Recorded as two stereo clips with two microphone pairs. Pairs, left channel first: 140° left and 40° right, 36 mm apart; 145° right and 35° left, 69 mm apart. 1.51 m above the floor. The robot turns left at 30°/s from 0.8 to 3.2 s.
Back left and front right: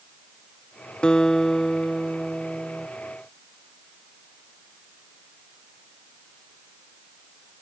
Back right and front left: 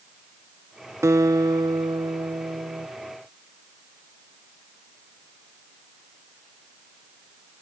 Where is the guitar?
75° left; by 2.9 s 20° left.